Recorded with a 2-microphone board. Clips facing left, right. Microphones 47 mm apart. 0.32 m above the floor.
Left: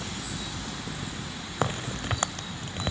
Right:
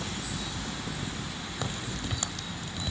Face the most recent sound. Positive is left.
turn(degrees=45)  # may be behind; listen again after turning